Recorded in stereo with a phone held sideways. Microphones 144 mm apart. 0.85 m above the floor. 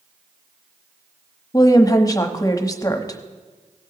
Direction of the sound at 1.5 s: 25° left (ahead or behind).